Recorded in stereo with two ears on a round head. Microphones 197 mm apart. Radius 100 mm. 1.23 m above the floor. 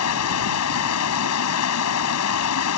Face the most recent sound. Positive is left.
turn(degrees=85)